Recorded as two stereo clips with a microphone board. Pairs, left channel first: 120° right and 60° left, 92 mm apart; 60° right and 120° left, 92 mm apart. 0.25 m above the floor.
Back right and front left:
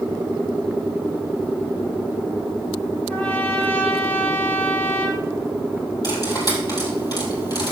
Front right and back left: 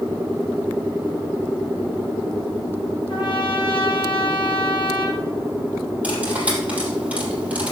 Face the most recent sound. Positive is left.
turn(degrees=-165)